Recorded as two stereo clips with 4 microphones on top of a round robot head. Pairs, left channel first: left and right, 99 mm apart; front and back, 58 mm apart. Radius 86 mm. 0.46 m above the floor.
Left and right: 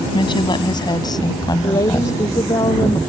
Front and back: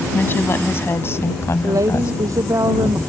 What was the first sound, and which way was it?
A woman speaking, 50° left.